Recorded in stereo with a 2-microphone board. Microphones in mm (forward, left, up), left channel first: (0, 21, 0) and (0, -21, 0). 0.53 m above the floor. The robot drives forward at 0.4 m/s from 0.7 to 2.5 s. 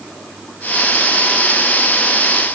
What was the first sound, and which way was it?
Only background noise.